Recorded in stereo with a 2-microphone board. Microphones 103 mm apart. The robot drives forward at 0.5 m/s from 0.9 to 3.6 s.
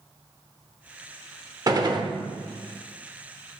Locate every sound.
1.7 s a gunshot: 35° right (ahead or behind), 0.9 m; by 2.1 s 45° right (ahead or behind), 0.8 m